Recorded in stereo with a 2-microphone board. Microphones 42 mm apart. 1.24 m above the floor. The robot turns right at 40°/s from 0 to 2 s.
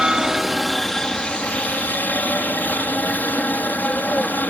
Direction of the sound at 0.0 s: 25° right.